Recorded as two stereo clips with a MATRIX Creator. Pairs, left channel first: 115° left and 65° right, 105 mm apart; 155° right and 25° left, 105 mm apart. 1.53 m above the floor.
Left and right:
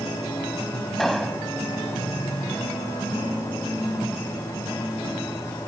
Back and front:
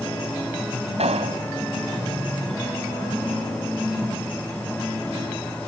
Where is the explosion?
25° left.